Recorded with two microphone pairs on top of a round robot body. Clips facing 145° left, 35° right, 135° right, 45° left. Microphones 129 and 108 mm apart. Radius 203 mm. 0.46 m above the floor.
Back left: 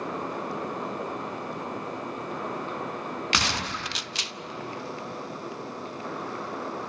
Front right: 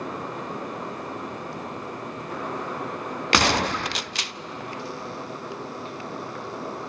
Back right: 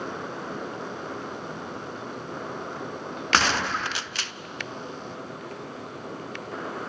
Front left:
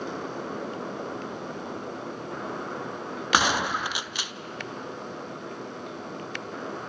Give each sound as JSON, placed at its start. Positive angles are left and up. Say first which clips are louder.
{"t": 3.3, "sound": "a gunshot", "louder": "front right 12 dB, even", "azimuth_deg": -25, "distance_m": 0.5}